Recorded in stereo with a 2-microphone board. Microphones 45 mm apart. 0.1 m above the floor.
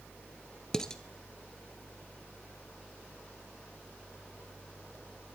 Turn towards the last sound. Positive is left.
turn(degrees=15)  # may be behind; listen again after turning